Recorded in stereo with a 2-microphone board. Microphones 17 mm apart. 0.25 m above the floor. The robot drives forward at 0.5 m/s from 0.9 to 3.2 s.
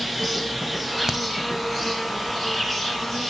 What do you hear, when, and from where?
0.0 s an insect: centre (ahead or behind), 1.3 m
1.1 s a crack: 25° right (ahead or behind), 0.9 m